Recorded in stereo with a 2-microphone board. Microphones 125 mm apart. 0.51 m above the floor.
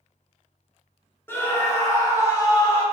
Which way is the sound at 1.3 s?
15° left (ahead or behind).